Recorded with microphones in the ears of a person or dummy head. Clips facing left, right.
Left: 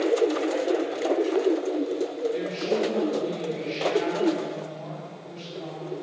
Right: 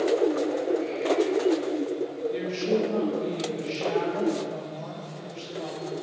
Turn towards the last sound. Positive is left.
turn(degrees=-85)